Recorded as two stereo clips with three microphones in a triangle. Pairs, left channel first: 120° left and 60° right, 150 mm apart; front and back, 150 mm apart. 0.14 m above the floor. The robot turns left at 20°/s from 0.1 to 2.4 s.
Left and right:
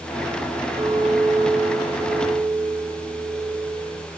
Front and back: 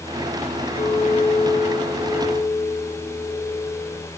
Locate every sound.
0.8 s a clink: 5° right, 1.7 m; by 4.1 s 40° right, 1.7 m